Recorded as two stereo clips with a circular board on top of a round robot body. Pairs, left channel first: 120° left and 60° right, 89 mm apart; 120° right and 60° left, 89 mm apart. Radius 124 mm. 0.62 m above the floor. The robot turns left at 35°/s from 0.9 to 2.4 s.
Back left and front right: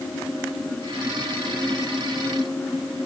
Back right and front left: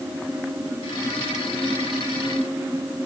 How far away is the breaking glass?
No breaking glass in this recording.